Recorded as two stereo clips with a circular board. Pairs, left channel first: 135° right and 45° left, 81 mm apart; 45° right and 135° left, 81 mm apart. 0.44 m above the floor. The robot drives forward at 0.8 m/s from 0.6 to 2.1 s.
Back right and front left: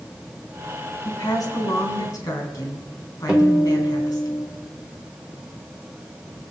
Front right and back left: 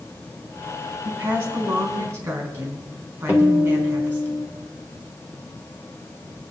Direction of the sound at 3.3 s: 100° left.